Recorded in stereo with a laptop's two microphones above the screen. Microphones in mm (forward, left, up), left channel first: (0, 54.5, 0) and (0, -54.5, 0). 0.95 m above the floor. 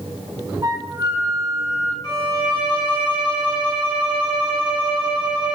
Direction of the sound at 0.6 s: 35° right (ahead or behind).